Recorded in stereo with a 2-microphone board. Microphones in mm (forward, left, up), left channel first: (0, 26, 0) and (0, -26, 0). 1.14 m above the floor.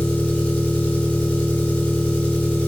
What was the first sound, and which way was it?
An engine running, 20° left (ahead or behind).